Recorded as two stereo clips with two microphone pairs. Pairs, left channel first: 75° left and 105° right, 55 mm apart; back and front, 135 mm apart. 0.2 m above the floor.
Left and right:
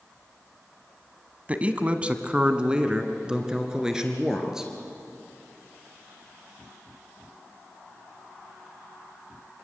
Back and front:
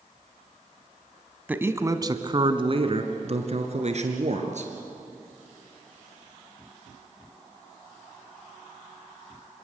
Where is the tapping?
I don't hear tapping.